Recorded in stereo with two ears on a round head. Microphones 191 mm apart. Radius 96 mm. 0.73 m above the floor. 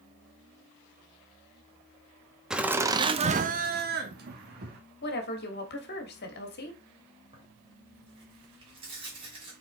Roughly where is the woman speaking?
Left.